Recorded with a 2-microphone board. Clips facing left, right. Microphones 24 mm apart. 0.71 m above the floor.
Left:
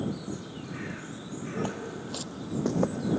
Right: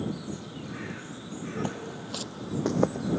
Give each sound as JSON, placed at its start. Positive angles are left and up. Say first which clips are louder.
{"t": 1.6, "sound": "footsteps", "louder": "even", "side_deg": 0}